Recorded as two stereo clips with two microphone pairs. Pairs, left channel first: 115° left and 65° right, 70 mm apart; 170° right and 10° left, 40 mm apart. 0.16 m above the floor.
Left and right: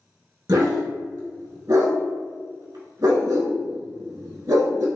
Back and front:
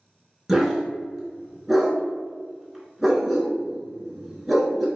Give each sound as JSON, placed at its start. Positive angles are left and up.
{"t": 0.5, "sound": "a dog barking", "azimuth_deg": -75, "distance_m": 0.6}